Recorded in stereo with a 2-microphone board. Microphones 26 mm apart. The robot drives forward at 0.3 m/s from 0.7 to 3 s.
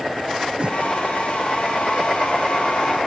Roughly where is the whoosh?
Right.